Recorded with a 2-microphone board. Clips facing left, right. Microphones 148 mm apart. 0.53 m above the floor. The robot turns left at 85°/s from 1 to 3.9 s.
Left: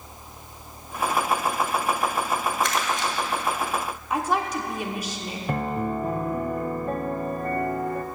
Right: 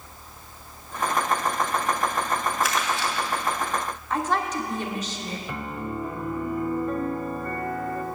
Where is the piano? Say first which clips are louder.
Left 9 dB; 60° left (ahead or behind), 0.7 m.